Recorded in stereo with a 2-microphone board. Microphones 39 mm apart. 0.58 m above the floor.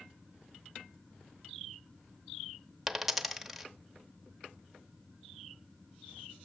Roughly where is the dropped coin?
Centre.